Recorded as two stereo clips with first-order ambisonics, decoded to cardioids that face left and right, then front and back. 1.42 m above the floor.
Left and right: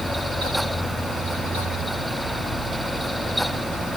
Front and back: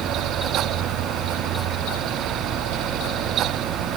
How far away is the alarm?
No alarm in this recording.